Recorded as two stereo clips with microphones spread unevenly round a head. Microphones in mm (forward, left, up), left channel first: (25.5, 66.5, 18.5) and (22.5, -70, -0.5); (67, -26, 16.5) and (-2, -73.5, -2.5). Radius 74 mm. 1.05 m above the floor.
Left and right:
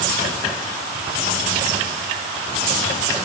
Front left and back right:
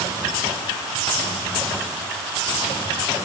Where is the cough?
I don't hear a cough.